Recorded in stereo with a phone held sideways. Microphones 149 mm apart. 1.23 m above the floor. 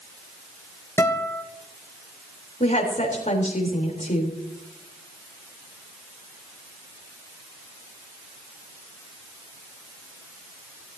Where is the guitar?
15° left (ahead or behind), 1.9 m.